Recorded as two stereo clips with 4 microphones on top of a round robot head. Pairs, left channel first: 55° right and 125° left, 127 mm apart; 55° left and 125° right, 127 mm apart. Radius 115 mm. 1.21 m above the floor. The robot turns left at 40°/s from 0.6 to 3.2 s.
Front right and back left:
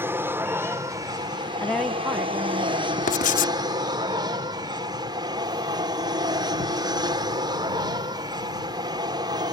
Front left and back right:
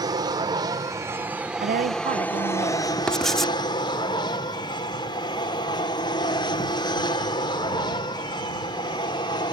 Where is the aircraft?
170° right; by 9.5 s 85° left.